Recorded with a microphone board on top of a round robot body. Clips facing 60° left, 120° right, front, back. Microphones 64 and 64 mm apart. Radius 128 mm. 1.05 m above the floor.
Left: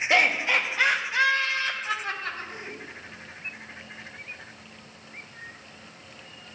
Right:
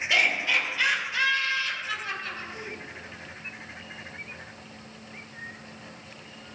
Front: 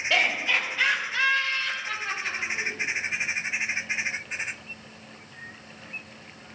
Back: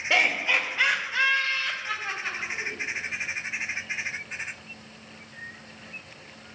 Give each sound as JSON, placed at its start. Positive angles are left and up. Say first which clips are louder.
{"t": 0.1, "sound": "laughter", "louder": "left 2 dB, back 1 dB", "azimuth_deg": 115, "distance_m": 2.0}